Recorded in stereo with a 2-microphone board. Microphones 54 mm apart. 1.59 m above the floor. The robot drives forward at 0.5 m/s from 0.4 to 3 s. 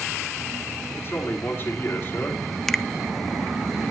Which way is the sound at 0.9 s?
45° left (ahead or behind).